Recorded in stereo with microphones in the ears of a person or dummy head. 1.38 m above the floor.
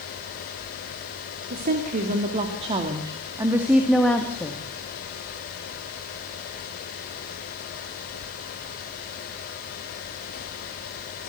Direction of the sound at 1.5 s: 45° right (ahead or behind).